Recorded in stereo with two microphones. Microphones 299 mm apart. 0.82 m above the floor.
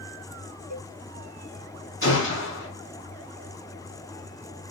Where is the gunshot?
45° left (ahead or behind), 4 m.